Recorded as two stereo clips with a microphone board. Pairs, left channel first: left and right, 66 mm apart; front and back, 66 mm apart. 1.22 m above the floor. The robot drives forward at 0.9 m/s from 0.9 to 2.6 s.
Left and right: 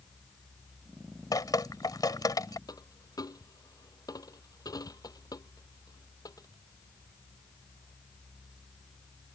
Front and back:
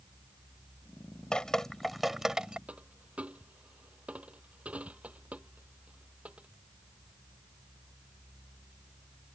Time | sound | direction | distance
1.3 | dripping | 75° left | ?
2.7 | a dropped coin | 110° left | ?